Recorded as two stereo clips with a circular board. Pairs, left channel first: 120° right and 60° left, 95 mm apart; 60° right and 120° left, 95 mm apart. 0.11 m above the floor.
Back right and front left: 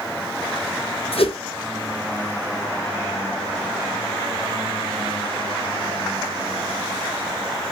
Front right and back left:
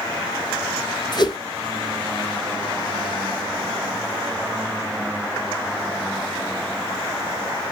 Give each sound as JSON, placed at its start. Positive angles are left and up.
{"t": 1.1, "sound": "a whoosh", "azimuth_deg": -105, "distance_m": 0.7}